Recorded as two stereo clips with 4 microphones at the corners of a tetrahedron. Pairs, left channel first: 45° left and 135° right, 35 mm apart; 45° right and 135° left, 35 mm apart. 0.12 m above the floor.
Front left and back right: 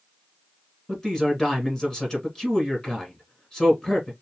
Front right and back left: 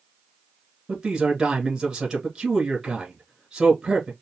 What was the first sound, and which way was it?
A man speaking, 100° left.